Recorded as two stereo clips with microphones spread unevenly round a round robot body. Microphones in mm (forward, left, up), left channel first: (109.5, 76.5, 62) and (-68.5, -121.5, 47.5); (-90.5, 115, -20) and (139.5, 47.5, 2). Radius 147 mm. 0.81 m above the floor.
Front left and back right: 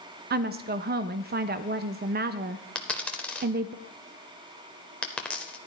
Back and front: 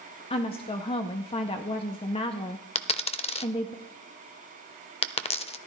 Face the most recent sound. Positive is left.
turn(degrees=120)